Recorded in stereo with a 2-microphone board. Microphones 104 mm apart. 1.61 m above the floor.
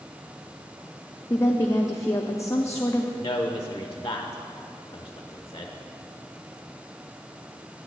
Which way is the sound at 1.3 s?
30° left (ahead or behind).